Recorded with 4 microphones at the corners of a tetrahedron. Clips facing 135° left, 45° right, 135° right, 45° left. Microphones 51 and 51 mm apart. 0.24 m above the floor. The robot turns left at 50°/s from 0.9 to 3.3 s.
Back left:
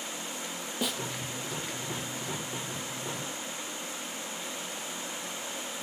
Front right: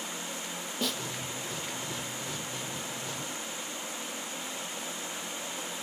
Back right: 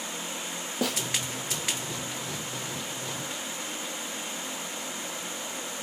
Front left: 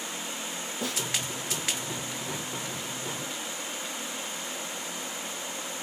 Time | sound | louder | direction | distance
0.8 | a snare drum | even, back right 4 dB | 145° right | 1.7 m